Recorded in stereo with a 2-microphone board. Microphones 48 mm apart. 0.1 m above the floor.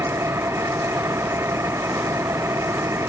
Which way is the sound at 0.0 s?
65° right (ahead or behind).